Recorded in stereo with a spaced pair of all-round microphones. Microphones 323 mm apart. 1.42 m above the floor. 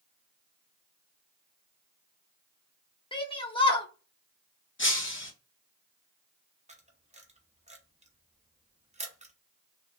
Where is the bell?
I don't hear a bell.